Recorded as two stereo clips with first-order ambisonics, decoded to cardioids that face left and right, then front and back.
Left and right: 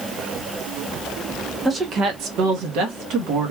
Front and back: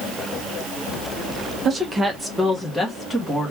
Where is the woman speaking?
150° right, 0.5 m; by 3.5 s 80° right, 1.3 m.